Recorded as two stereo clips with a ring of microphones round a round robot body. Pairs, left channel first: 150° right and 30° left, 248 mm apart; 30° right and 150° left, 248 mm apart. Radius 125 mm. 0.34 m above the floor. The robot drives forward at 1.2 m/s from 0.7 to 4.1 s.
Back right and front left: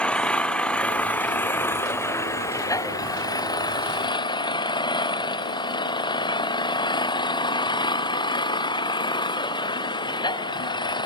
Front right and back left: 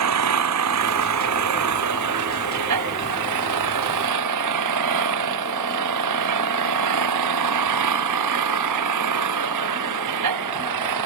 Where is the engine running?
125° left; by 11.1 s 135° left.